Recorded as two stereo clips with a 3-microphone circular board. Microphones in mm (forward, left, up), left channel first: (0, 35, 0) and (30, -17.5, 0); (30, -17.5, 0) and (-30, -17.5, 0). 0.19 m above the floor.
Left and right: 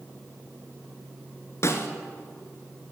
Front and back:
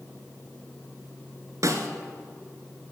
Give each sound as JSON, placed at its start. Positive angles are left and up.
{"t": 1.6, "sound": "a snare drum", "azimuth_deg": 155, "distance_m": 1.3}